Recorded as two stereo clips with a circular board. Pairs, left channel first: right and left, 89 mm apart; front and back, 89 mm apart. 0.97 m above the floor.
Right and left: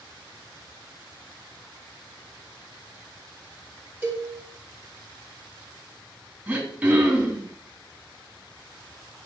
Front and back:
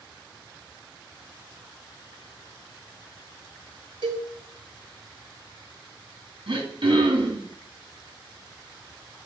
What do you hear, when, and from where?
4.0 s a cowbell: 155° left, 2 m
6.5 s throat clearing: 165° left, 2.5 m